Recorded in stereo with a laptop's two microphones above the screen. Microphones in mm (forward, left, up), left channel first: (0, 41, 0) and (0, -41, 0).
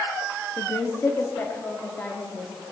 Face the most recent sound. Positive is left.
turn(degrees=15)  # may be behind; listen again after turning